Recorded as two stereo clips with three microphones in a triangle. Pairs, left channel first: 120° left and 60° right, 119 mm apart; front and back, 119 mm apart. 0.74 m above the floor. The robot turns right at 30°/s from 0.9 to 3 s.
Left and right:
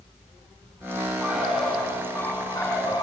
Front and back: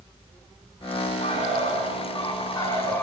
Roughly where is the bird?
Ahead.